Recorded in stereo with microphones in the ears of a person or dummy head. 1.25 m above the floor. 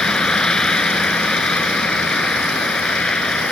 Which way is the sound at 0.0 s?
10° left (ahead or behind).